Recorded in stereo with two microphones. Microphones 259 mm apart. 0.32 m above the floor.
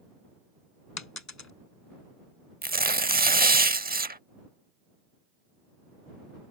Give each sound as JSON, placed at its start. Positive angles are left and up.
{"t": 1.0, "sound": "a dropped coin", "side_deg": 85}
{"t": 2.6, "sound": "tearing paper", "side_deg": -35}